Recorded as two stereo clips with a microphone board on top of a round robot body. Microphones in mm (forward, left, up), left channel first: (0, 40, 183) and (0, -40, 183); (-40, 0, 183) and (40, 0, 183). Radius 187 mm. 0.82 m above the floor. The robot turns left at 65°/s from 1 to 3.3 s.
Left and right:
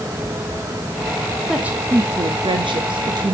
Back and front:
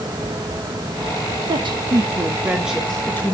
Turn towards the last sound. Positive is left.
turn(degrees=-125)